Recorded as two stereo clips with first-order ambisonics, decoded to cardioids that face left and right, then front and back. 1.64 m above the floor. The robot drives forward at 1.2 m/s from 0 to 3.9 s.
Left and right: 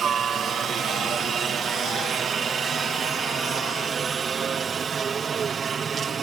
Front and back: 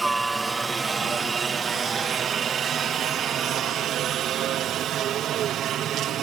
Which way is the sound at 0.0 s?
110° right.